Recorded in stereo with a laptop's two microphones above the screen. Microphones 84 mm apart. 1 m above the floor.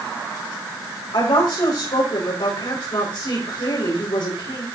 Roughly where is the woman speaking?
Left.